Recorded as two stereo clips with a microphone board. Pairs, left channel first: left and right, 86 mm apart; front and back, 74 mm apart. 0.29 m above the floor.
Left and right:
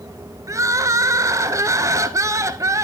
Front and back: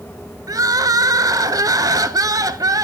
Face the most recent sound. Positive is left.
turn(degrees=-145)